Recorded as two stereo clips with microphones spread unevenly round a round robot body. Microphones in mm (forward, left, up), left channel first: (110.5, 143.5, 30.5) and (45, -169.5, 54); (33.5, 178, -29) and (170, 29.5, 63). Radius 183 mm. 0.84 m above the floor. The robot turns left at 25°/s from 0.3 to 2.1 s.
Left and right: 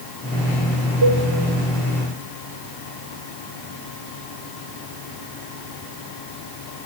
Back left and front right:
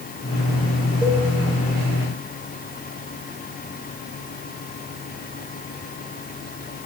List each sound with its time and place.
1.0 s a cowbell: 140° right, 3 m; by 1.2 s 145° right, 3 m